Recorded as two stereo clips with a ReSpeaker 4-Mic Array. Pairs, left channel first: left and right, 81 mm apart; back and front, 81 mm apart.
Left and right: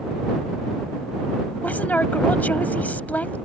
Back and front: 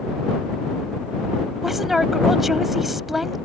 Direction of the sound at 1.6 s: 80° left.